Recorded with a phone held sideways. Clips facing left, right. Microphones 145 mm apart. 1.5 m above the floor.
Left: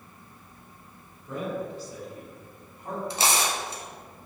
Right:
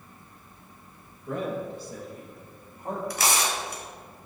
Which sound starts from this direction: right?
A man speaking, at 1.3 s.